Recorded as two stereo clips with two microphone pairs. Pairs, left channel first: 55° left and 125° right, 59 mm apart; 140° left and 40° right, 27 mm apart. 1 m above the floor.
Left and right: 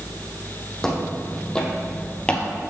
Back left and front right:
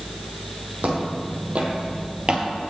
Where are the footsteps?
25° right, 2.5 m; by 2.5 s 5° right, 1.3 m.